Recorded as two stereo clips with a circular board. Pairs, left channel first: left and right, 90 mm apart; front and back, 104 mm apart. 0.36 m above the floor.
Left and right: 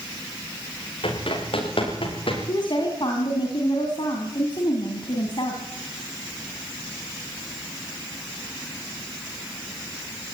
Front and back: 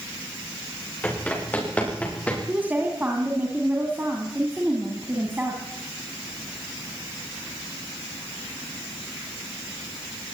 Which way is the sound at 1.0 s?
75° left.